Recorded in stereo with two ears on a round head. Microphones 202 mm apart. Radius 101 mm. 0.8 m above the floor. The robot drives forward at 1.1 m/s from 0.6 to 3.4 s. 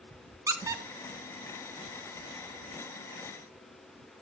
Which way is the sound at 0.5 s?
15° right (ahead or behind).